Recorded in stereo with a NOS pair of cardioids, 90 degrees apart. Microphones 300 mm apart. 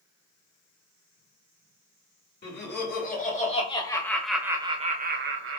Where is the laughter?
35° left, 1.6 m; by 5.6 s 50° right, 0.9 m.